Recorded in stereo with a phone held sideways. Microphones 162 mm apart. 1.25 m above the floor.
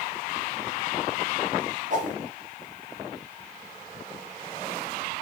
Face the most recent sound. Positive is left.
turn(degrees=-55)  # may be behind; listen again after turning